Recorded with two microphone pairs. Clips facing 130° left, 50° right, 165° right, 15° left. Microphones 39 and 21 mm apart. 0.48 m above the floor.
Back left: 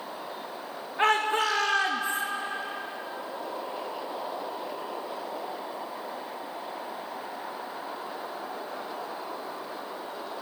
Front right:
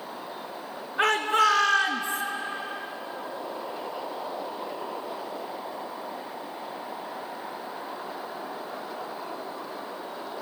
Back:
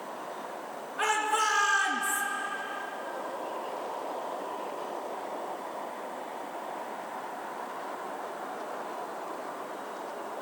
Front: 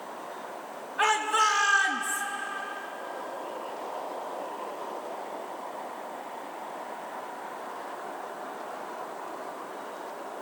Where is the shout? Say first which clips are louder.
Front right 2 dB, front 3 dB; 60° right, 5 m; by 2.2 s 65° right, 5 m.